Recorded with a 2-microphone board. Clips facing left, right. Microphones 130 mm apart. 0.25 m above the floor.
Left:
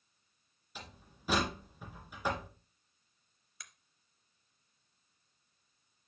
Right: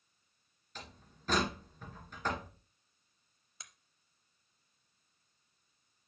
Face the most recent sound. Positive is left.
turn(degrees=-25)  # may be behind; listen again after turning